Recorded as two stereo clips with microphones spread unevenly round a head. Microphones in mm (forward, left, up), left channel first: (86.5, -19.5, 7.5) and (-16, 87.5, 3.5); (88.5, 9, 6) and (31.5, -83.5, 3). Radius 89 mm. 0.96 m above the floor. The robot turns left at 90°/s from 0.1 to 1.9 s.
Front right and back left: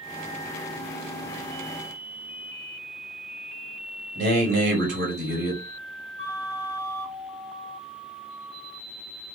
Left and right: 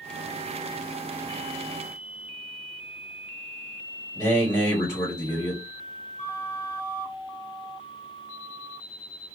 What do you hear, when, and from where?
4.2 s a man speaking: 125° left, 1.8 m
6.2 s a flute: 90° left, 1.0 m